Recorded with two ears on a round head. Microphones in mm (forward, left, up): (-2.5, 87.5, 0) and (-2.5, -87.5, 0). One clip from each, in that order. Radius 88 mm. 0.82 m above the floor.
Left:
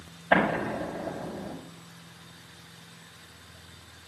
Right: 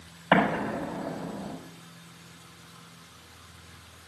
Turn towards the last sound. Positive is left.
turn(degrees=-50)  # may be behind; listen again after turning